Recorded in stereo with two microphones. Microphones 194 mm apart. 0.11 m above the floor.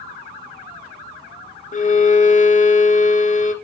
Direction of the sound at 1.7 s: 40° left (ahead or behind).